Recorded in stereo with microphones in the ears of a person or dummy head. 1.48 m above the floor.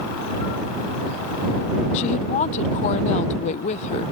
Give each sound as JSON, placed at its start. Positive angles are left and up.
{"t": 1.9, "sound": "a woman speaking", "side_deg": 40}